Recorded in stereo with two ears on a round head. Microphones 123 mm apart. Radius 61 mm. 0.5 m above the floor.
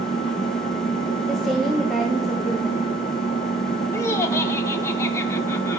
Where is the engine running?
45° left (ahead or behind), 2.5 m.